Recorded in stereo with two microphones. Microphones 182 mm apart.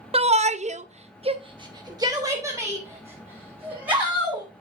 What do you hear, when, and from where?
0.1 s a shout: 35° right (ahead or behind), 0.6 m; by 4.5 s 10° right (ahead or behind), 2 m